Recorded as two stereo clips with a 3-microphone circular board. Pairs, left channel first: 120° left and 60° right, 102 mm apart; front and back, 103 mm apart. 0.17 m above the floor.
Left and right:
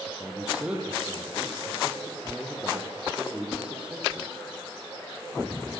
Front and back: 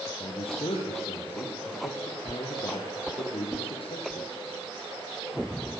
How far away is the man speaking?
About 6.5 m.